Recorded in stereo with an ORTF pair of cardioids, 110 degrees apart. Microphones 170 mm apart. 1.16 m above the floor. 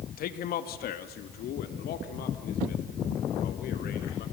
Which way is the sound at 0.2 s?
65° left.